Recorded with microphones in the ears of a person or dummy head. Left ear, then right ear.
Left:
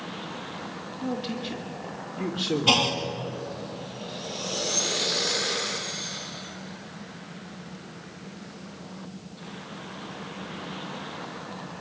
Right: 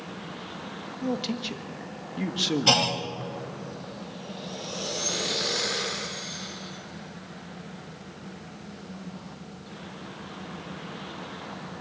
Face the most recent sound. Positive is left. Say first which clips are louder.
# left 1 dB
turn(degrees=-50)  # may be behind; listen again after turning